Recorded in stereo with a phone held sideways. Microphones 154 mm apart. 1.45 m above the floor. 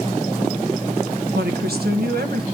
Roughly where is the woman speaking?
Right.